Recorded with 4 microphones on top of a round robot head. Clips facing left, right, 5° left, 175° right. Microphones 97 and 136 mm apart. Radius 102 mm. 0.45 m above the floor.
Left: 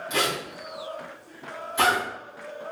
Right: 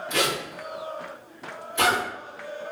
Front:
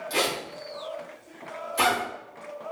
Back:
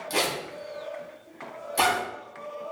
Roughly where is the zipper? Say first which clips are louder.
Right 1 dB, even; behind.